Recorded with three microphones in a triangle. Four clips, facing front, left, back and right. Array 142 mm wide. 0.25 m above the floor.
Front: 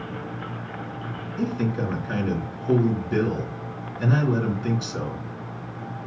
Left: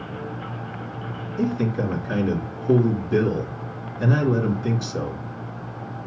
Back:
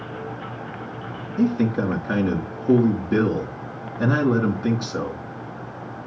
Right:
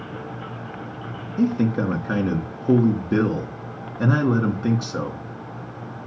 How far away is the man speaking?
About 3 m.